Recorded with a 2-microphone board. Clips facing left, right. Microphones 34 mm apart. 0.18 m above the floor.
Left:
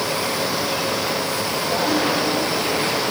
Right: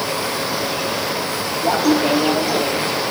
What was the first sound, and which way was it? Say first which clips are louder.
Laughter: right 5 dB; 75° right (ahead or behind).